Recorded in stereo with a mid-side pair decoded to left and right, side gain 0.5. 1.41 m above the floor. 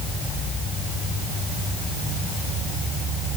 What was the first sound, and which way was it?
Only background noise.